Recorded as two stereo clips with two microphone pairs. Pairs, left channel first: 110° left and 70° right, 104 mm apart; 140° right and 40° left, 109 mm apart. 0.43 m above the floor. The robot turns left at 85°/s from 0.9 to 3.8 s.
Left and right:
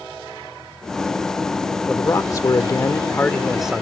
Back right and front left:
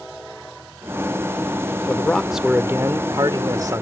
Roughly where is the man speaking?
Behind.